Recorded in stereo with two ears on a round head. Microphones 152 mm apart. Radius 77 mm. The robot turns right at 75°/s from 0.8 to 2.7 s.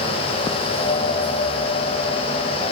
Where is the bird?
I don't hear a bird.